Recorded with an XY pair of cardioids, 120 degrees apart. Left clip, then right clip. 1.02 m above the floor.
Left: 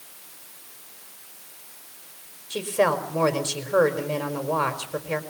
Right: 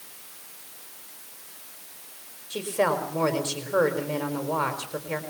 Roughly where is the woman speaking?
Ahead.